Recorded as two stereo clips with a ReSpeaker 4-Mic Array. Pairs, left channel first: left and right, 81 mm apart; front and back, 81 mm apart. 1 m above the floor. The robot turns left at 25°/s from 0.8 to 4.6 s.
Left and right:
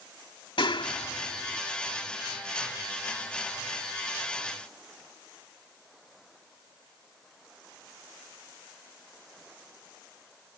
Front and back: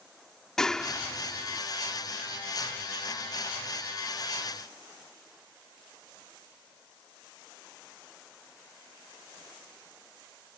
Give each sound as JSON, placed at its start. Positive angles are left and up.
{"t": 0.6, "sound": "a clap", "azimuth_deg": 85}